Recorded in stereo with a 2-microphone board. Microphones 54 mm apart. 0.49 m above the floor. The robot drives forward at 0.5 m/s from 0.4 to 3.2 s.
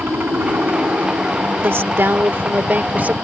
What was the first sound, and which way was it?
A helicopter, 40° right (ahead or behind).